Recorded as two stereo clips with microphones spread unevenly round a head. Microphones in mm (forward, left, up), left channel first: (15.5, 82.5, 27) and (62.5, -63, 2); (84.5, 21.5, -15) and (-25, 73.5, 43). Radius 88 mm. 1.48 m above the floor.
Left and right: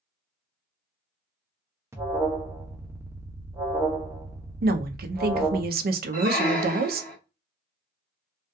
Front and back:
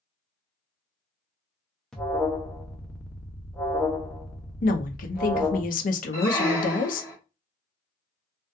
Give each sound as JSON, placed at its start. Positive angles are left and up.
{"t": 1.9, "sound": "an alarm", "azimuth_deg": -40, "distance_m": 0.6}
{"t": 4.6, "sound": "a woman speaking", "azimuth_deg": -45, "distance_m": 0.5}
{"t": 6.1, "sound": "a squeak", "azimuth_deg": 75, "distance_m": 1.0}